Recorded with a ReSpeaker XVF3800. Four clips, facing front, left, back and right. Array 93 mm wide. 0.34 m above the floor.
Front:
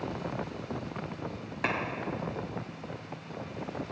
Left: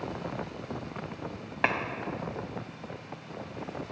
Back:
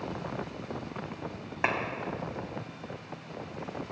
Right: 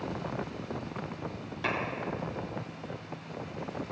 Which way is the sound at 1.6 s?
115° left.